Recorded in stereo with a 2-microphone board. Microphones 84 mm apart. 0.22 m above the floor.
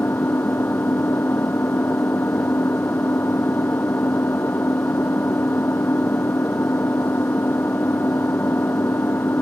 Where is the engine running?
25° left (ahead or behind).